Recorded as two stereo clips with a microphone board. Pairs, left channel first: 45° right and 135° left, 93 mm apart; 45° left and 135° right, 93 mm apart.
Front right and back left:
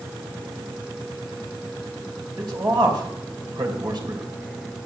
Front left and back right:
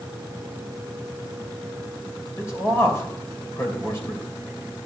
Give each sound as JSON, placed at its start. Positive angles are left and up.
{"t": 2.4, "sound": "a man speaking", "azimuth_deg": 100, "distance_m": 2.5}